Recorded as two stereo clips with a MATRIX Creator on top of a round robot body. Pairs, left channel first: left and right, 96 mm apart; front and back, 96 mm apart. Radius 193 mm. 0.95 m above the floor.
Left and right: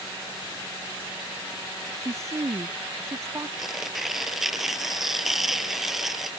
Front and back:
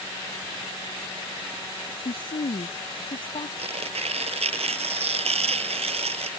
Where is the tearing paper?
175° right.